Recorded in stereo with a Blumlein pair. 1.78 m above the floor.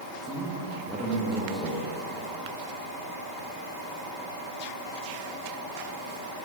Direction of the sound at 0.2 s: 5° right.